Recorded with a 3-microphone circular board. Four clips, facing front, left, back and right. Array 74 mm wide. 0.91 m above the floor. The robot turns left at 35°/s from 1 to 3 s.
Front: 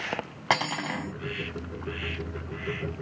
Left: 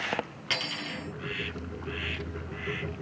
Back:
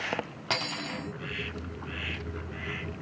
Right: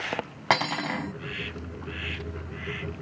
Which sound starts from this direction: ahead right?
Cutlery clinking, at 0.5 s.